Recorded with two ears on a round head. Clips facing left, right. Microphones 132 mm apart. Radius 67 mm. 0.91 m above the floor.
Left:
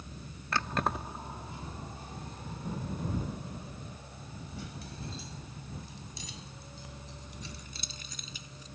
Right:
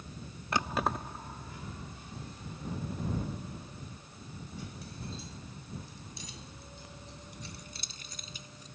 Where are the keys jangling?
15° right (ahead or behind); by 8.7 s 70° left (ahead or behind).